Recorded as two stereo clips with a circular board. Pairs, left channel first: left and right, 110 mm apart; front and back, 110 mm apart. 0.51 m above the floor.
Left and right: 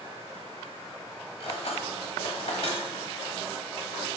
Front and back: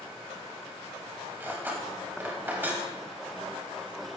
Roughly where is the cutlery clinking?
Left.